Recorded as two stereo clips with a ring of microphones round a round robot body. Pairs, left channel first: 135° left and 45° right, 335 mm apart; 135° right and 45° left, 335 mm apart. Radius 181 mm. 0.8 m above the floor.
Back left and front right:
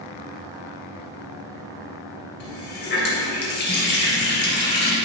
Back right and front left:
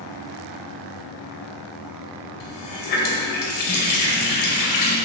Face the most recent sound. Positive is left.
turn(degrees=-165)